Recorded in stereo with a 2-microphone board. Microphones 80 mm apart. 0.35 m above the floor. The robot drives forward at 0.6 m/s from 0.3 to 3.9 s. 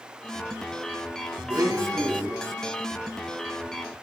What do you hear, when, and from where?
1.5 s a blender: 55° right (ahead or behind), 1.9 m; by 2.4 s 45° right (ahead or behind), 2 m